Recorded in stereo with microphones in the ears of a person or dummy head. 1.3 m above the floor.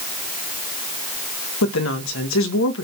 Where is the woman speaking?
70° left (ahead or behind), 1.6 m.